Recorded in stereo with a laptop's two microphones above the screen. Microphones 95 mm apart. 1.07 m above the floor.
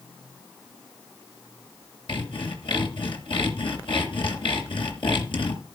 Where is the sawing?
70° left (ahead or behind), 3 m.